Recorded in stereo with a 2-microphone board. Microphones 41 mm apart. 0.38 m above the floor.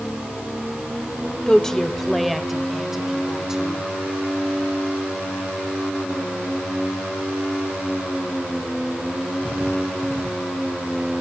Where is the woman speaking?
15° left (ahead or behind), 1.2 m; by 3.9 s 10° right (ahead or behind), 3 m.